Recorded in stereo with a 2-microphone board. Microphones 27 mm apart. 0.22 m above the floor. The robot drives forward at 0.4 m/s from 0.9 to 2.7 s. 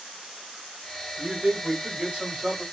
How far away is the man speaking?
About 1.8 m.